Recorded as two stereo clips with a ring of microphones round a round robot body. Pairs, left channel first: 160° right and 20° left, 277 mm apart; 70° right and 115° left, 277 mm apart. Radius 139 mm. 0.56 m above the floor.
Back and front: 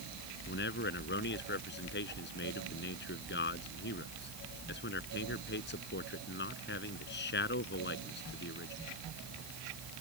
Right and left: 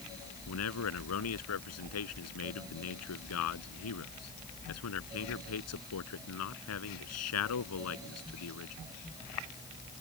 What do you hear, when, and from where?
0.5 s a man speaking: 105° right